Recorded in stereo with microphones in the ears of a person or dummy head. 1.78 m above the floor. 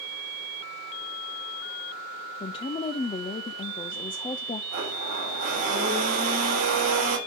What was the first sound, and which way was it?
A woman speaking, 30° left (ahead or behind).